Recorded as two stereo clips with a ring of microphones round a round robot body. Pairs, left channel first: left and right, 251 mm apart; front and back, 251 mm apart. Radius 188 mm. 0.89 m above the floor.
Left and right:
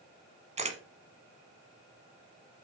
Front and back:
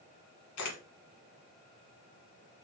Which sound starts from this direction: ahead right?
A camera shutter, at 0.6 s.